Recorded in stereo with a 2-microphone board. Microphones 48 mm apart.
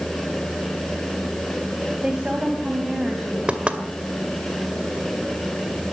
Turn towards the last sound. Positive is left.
turn(degrees=-25)  # may be behind; listen again after turning